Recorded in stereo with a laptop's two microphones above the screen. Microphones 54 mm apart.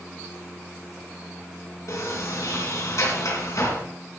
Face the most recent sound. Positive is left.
turn(degrees=75)  # may be behind; listen again after turning